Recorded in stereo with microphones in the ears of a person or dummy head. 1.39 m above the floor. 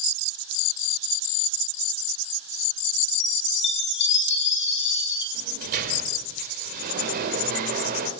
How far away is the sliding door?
About 4 m.